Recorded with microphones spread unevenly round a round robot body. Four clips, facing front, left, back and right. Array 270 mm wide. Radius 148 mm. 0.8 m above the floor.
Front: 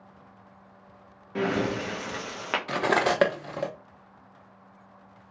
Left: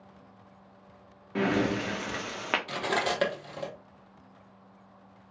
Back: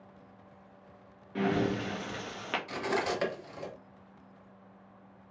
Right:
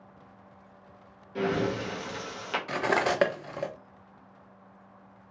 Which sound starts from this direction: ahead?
Cutlery clinking, at 2.7 s.